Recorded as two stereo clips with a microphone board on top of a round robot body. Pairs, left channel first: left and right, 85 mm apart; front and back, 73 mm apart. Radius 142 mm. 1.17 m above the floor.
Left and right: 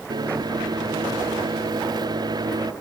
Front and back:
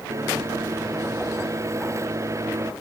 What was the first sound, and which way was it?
A microwave, 130° right.